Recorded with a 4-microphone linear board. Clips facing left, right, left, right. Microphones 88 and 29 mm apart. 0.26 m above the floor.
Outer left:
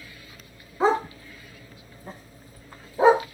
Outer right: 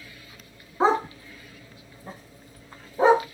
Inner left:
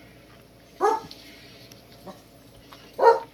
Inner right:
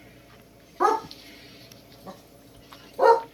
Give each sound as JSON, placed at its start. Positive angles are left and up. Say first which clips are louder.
{"t": 0.8, "sound": "a dog barking", "louder": "even, inner right 1 dB", "side_deg": -30, "distance_m": 0.9}